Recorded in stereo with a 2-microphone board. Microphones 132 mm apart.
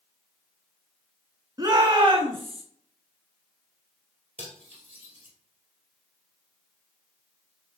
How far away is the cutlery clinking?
About 2 m.